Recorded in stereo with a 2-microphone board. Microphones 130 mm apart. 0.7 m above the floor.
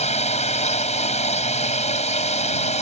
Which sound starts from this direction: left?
A drone, at 0.0 s.